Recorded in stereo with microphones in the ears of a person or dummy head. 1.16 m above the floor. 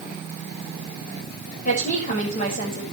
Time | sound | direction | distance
1.6 | a woman speaking | 50° left (ahead or behind) | 5.5 m